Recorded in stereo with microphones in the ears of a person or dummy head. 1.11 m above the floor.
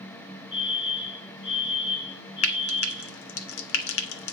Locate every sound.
0.5 s a fire alarm: 25° left (ahead or behind), 4 m
2.4 s frying: 75° left (ahead or behind), 1.7 m